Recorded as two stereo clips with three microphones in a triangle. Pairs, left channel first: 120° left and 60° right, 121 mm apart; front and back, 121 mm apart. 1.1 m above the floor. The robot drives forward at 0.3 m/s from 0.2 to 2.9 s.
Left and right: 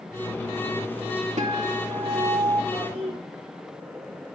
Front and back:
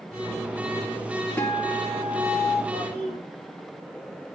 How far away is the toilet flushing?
About 3.5 m.